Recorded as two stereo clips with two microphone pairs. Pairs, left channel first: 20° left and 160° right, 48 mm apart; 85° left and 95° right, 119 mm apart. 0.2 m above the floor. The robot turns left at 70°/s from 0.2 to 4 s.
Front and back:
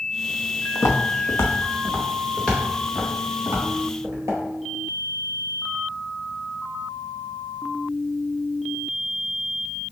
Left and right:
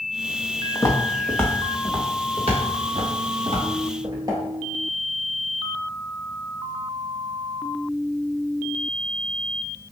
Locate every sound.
0.8 s footsteps: 25° left, 0.9 m; by 4.4 s 155° right, 3.5 m